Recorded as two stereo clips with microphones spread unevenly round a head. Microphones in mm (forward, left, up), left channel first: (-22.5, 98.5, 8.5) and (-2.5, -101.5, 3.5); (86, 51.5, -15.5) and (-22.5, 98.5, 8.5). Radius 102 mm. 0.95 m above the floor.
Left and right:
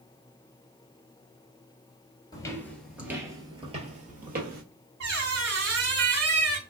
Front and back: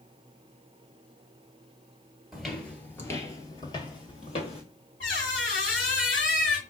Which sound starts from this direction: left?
Footsteps, at 2.3 s.